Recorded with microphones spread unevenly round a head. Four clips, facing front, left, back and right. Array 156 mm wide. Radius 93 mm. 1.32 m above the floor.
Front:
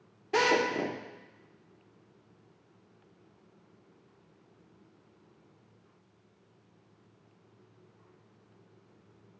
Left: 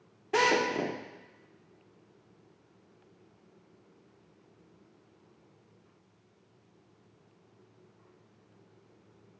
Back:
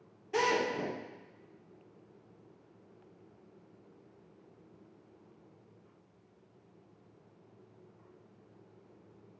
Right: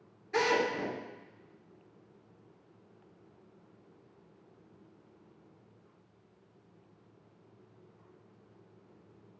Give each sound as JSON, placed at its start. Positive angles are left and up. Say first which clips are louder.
{"t": 0.3, "sound": "a drill", "louder": "left 2 dB, front 4 dB", "azimuth_deg": 40, "distance_m": 1.5}